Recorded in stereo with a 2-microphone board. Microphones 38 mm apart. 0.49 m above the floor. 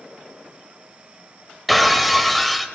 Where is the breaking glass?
Centre (ahead or behind), 1.1 m.